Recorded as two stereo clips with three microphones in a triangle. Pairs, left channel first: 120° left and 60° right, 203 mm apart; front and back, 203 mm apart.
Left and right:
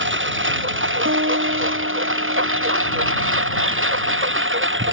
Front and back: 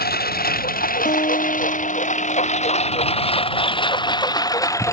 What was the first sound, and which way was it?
A lawn mower, 40° right.